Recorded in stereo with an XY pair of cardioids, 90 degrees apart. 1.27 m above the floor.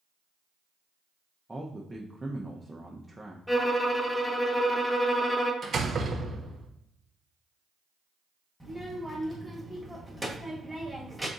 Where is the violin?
5° left, 1.0 m.